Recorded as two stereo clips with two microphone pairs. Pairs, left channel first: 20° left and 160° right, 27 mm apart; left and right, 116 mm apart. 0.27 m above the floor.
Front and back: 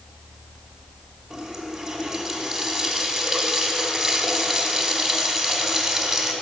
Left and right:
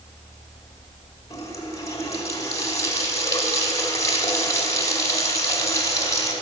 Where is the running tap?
145° left, 1.4 m.